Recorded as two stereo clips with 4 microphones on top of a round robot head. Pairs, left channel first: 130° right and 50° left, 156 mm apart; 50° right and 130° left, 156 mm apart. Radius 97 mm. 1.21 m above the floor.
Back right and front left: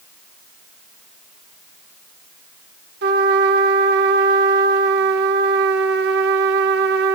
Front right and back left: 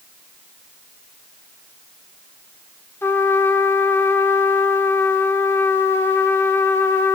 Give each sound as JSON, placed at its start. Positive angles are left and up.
{"t": 3.0, "sound": "a trumpet", "azimuth_deg": 30, "distance_m": 1.0}